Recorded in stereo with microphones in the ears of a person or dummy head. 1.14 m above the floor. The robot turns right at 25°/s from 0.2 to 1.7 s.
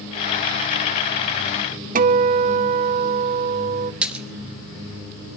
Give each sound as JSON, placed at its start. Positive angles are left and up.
{"t": 1.9, "sound": "a guitar", "side_deg": -40, "distance_m": 0.6}
{"t": 4.0, "sound": "a splash", "side_deg": -5, "distance_m": 1.3}